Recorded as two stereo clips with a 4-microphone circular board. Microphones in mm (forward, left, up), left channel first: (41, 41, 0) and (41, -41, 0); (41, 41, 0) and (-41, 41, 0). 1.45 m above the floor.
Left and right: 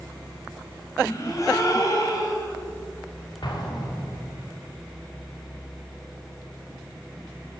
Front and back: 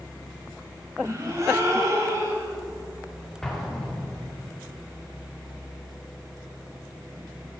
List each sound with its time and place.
1.0 s a gasp: 135° left, 2.5 m
3.4 s an explosion: 85° left, 1.9 m